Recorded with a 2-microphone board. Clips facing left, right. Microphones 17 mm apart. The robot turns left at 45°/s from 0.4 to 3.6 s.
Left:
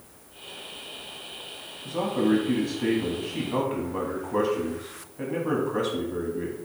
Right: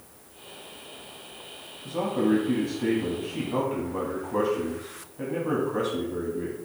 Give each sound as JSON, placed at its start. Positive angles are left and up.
{"t": 1.9, "sound": "a man speaking", "azimuth_deg": 160, "distance_m": 1.1}